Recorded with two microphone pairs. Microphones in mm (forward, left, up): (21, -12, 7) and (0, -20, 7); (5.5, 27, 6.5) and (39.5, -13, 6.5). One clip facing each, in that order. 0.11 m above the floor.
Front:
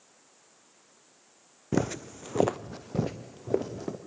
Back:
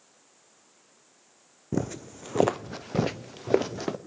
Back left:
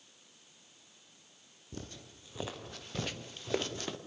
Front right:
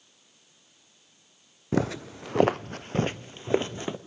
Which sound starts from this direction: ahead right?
Footsteps, at 1.7 s.